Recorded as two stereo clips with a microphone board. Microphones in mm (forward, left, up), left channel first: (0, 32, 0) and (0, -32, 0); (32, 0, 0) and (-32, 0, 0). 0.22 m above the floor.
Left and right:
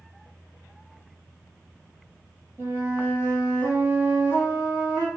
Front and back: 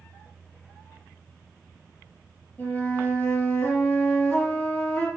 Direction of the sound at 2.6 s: 55° left.